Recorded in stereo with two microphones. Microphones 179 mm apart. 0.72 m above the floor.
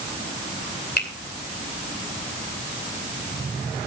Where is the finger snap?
65° left (ahead or behind), 2.5 m.